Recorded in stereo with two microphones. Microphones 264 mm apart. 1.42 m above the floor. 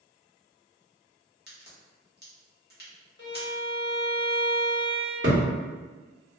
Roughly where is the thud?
Right.